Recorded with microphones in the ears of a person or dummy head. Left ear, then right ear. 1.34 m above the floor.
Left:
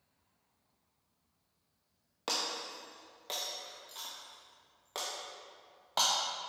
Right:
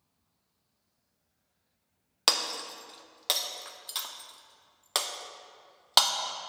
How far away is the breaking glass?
About 0.8 m.